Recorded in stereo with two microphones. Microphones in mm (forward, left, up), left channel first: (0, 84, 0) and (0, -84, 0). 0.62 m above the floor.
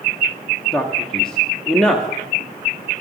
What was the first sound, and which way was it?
A man speaking, 5° left (ahead or behind).